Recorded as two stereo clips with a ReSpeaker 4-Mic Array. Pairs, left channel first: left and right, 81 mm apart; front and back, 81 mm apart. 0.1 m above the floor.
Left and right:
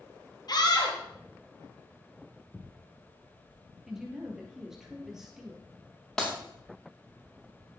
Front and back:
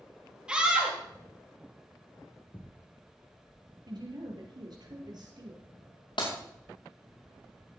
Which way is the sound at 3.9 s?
175° right.